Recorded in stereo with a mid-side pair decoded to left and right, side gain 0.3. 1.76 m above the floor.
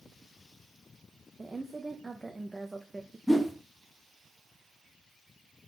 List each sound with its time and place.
1.4 s a woman speaking: 25° right, 0.6 m
3.3 s a whoosh: 5° left, 0.8 m